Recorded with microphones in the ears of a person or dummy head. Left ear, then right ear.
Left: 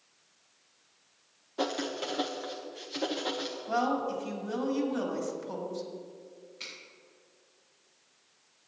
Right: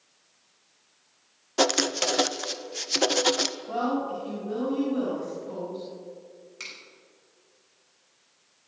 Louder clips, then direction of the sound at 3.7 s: Right 1 dB; 55° left (ahead or behind).